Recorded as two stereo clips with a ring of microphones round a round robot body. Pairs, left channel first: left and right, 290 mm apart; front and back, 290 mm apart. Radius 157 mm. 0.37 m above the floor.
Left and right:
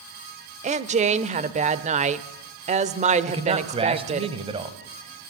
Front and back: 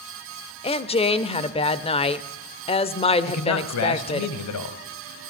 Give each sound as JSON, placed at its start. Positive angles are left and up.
{"t": 0.6, "sound": "a woman speaking", "azimuth_deg": -50, "distance_m": 0.9}
{"t": 3.3, "sound": "a man speaking", "azimuth_deg": -20, "distance_m": 2.0}